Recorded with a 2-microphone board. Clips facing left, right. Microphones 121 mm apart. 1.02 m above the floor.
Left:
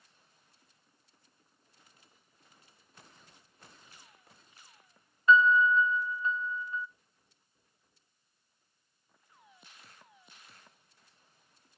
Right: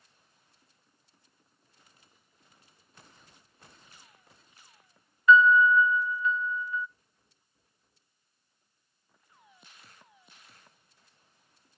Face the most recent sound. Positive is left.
turn(degrees=30)  # may be behind; listen again after turning